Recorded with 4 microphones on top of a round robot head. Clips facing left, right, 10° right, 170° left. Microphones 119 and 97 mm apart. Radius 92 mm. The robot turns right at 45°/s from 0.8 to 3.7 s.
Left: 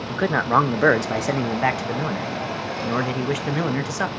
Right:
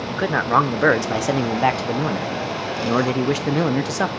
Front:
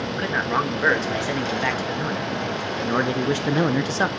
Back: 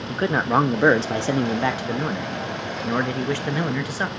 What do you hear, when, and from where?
0.1 s a man speaking: straight behind, 0.8 m; by 4.1 s 50° right, 0.8 m